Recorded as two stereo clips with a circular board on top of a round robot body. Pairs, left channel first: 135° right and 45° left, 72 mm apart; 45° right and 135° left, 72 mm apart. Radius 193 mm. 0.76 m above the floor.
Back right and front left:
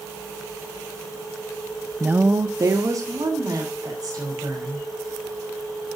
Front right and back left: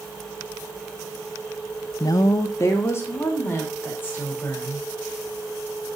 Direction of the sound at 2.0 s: 25° right.